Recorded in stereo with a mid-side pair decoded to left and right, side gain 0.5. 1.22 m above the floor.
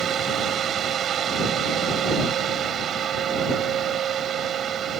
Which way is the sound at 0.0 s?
55° right.